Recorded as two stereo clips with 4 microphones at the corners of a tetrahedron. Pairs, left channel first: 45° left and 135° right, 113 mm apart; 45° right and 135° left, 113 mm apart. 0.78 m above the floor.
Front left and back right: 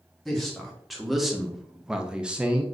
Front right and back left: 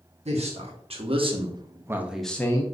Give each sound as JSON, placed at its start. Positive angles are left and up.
{"t": 0.2, "sound": "a man speaking", "azimuth_deg": 135, "distance_m": 1.3}